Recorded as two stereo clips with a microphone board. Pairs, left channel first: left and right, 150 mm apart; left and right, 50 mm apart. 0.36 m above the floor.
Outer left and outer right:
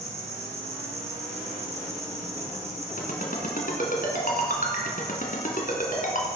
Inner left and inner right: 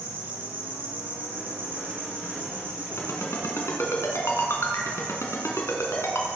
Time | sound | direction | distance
0.0 | an insect | 45° right (ahead or behind) | 4 m
3.0 | a ringtone | 65° left (ahead or behind) | 2.5 m